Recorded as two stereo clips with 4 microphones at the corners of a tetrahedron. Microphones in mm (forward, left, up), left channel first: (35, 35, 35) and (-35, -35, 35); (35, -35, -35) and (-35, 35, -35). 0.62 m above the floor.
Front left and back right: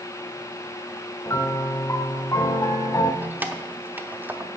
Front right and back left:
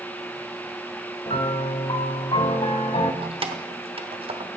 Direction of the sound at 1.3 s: 15° right.